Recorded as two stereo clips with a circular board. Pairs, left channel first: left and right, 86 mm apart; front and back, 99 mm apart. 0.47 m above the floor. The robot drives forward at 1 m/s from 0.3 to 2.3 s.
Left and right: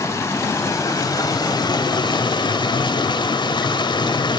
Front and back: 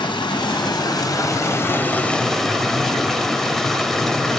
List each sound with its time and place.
0.0 s running water: 35° left, 2.5 m; by 4.4 s 85° left, 1.6 m